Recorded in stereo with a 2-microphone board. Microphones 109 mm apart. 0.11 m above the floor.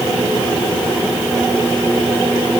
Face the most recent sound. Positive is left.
No sound to turn to.